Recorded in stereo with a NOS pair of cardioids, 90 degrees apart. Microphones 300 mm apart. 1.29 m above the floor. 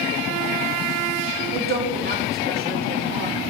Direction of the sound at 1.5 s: 35° right.